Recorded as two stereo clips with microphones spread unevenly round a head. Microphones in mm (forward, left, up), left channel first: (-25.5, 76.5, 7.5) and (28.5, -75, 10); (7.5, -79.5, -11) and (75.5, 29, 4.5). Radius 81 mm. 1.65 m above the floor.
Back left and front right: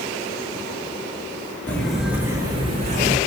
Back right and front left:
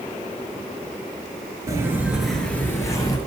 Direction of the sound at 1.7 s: 35° left.